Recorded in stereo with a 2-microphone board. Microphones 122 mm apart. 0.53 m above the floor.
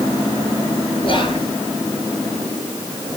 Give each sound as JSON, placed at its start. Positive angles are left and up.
{"t": 1.0, "sound": "whispering", "side_deg": 45, "distance_m": 7.5}